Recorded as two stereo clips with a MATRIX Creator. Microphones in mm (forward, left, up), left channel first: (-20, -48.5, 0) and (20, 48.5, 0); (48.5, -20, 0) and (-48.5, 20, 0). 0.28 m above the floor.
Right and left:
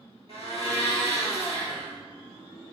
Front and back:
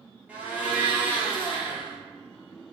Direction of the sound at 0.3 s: 130° right.